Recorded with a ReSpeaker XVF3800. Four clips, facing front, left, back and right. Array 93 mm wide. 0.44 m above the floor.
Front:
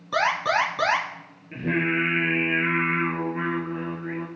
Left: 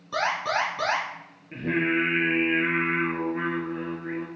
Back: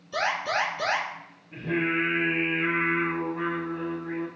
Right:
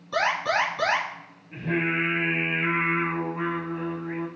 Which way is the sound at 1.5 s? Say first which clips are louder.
Left 1 dB, front 2 dB; 40° left.